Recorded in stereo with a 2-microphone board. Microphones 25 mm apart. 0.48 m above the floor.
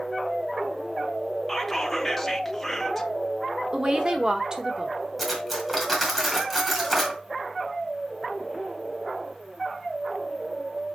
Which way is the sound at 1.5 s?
10° left (ahead or behind).